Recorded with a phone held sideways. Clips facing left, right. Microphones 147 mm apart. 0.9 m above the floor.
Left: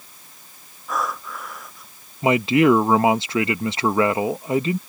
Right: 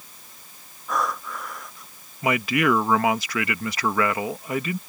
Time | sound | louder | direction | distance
0.9 | breathing | even | centre (ahead or behind) | ?
2.2 | a man speaking | left 6 dB | 25° left (ahead or behind) | ?